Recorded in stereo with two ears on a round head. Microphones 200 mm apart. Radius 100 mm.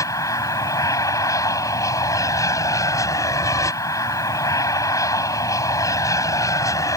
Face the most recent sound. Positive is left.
turn(degrees=15)  # may be behind; listen again after turning